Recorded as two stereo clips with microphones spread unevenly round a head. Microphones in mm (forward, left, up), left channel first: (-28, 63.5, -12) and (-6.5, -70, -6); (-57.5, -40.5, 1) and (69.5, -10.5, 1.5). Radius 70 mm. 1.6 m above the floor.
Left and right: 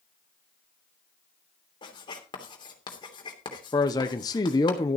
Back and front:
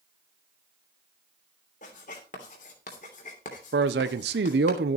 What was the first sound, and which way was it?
Writing, 155° left.